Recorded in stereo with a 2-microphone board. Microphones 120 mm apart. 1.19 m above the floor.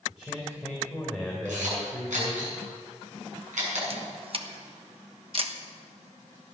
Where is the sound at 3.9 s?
50° right (ahead or behind), 1.0 m.